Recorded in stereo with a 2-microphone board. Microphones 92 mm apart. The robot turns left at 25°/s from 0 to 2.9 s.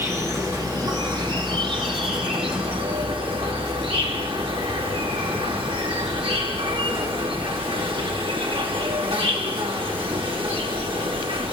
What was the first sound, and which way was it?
An insect, 30° right.